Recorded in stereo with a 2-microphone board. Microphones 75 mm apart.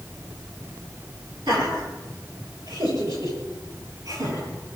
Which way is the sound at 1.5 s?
65° right (ahead or behind).